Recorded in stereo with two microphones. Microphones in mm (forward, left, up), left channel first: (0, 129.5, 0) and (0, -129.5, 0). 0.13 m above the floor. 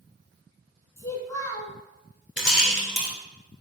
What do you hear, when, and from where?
1.0 s a child speaking: 10° left (ahead or behind), 0.6 m
2.4 s a rattle: 50° left (ahead or behind), 0.8 m